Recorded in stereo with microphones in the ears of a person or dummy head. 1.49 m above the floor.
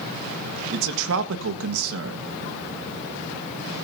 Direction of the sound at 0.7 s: 75° right (ahead or behind).